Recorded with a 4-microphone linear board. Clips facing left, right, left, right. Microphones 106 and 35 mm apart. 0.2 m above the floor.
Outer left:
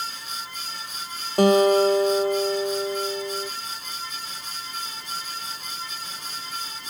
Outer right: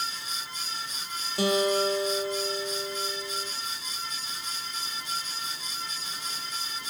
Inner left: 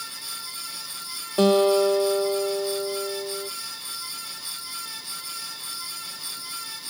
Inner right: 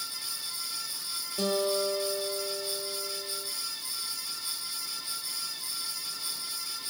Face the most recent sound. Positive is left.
turn(degrees=55)  # may be behind; listen again after turning